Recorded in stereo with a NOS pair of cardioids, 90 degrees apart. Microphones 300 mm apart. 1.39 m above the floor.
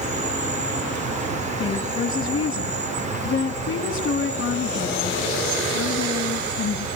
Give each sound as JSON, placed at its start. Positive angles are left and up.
{"t": 0.0, "sound": "an insect", "azimuth_deg": -25, "distance_m": 2.5}
{"t": 1.6, "sound": "a woman speaking", "azimuth_deg": 45, "distance_m": 2.0}